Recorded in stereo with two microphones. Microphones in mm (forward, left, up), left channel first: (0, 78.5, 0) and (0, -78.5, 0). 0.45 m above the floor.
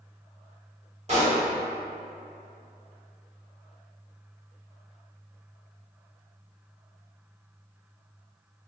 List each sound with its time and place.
1.1 s a pop: 45° right (ahead or behind), 1.6 m